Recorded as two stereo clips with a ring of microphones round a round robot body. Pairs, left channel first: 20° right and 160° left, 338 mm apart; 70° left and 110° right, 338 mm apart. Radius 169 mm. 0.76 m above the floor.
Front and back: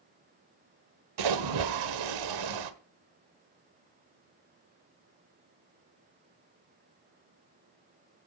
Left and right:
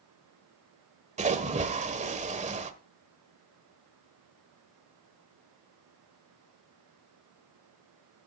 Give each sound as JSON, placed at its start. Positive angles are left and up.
{"t": 1.2, "sound": "a splash", "azimuth_deg": 180, "distance_m": 1.4}